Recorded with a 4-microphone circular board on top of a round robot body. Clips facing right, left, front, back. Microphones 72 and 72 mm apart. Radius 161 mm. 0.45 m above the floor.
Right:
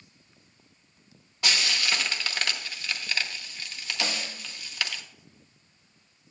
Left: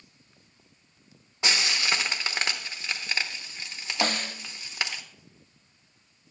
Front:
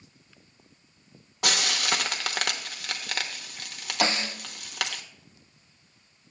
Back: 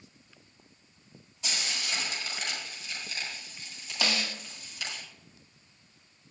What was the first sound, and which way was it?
Frying, 20° left.